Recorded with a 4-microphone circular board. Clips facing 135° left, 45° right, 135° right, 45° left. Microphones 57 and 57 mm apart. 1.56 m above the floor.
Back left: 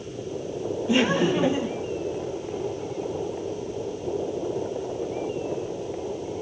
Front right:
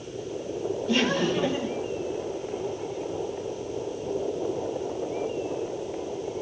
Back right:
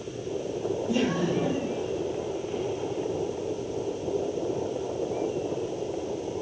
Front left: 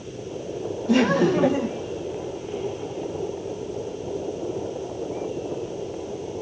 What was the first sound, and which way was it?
Laughter, 60° left.